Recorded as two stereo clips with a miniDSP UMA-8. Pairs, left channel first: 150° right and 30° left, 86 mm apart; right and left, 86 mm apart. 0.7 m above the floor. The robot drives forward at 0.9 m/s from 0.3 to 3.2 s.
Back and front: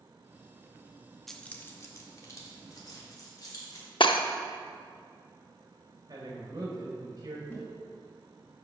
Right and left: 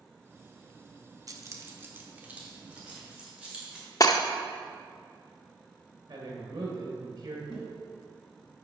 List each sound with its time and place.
1.3 s keys jangling: 125° left, 0.6 m; by 3.9 s 170° left, 2 m
4.0 s breaking glass: 135° right, 0.5 m
6.1 s a man speaking: 75° left, 2.5 m
7.5 s tapping: 90° right, 2 m